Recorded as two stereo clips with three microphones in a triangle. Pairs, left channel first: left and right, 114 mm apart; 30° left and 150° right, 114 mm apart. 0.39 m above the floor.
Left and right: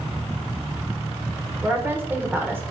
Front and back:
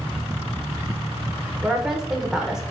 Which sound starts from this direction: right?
A woman speaking, at 1.6 s.